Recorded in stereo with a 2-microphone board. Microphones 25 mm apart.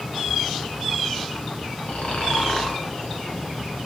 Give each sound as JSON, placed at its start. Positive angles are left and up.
{"t": 1.9, "sound": "snoring", "side_deg": 65, "distance_m": 5.5}